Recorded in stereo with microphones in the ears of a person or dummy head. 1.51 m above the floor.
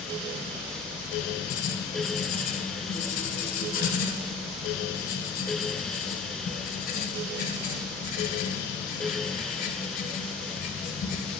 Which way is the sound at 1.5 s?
50° left (ahead or behind).